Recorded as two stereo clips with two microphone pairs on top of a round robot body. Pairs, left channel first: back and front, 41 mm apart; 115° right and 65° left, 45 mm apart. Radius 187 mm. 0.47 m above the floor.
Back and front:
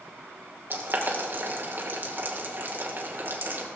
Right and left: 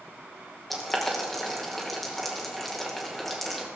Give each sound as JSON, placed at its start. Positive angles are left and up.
{"t": 0.7, "sound": "boiling", "azimuth_deg": -30, "distance_m": 2.5}